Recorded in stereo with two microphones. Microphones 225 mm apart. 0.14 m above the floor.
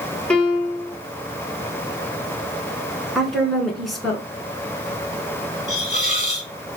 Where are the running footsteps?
No running footsteps in this recording.